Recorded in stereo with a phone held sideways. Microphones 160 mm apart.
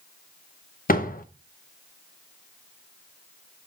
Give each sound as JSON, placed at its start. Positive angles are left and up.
{"t": 0.9, "sound": "a door slam", "side_deg": 60, "distance_m": 0.7}